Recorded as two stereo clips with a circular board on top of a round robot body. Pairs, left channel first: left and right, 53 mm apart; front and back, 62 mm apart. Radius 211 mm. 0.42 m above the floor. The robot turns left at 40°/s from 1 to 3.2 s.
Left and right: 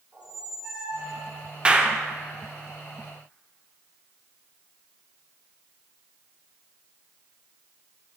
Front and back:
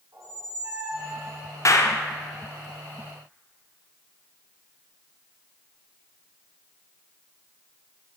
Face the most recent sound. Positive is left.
turn(degrees=-85)